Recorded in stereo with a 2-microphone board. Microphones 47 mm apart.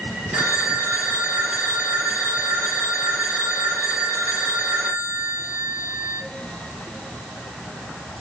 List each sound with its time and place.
0.3 s a phone ringing: 45° right (ahead or behind), 2.0 m